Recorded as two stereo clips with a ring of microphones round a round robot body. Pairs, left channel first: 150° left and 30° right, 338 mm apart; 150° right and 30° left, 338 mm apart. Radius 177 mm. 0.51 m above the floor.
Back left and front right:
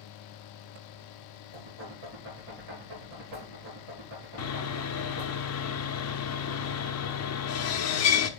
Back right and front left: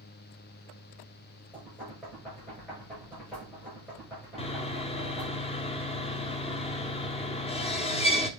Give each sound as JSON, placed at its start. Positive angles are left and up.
{"t": 1.5, "sound": "knocking", "azimuth_deg": -65, "distance_m": 6.5}
{"t": 4.4, "sound": "sawing", "azimuth_deg": 145, "distance_m": 0.9}